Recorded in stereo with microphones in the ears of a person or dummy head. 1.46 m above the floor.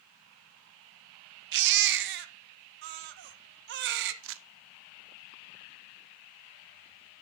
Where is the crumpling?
65° right (ahead or behind), 0.7 m.